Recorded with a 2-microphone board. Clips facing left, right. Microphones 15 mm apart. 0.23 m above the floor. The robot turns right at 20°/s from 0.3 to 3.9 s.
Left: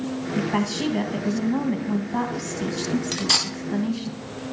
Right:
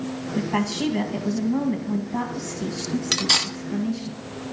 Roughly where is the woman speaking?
Ahead.